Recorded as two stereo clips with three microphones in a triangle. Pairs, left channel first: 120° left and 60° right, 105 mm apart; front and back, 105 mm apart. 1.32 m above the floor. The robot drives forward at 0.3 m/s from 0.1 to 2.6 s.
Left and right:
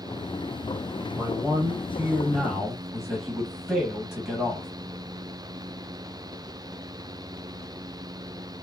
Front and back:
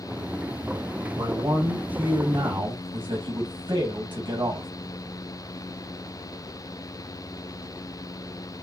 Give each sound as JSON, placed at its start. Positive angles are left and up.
{"t": 1.1, "sound": "a man speaking", "azimuth_deg": -130, "distance_m": 1.2}